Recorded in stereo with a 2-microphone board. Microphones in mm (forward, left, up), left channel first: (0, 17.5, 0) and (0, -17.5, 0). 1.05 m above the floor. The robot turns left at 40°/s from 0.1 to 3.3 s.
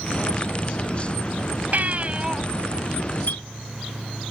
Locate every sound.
1.7 s a baby crying: 50° right (ahead or behind); by 2.4 s 20° right (ahead or behind)
3.3 s a clink: 70° left (ahead or behind)